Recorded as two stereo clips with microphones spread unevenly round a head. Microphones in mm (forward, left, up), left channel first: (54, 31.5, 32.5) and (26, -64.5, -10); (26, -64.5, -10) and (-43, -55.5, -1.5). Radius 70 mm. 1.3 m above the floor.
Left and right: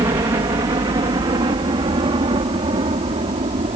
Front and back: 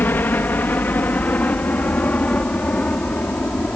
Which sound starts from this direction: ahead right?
A helicopter, at 0.0 s.